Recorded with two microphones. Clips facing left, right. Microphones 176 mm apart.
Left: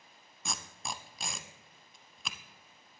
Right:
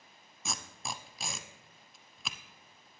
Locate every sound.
0.5 s tape being pulled: centre (ahead or behind), 0.6 m